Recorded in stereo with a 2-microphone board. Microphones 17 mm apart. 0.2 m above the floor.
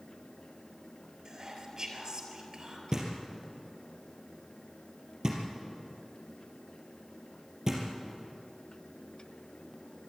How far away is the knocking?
About 3.5 m.